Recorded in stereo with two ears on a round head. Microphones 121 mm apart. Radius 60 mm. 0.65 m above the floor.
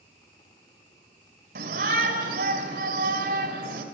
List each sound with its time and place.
1.6 s a shout: 80° right, 4 m